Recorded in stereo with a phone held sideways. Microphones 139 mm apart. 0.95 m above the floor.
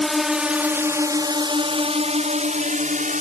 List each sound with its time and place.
0.0 s a drone: centre (ahead or behind); by 3.2 s 65° right (ahead or behind)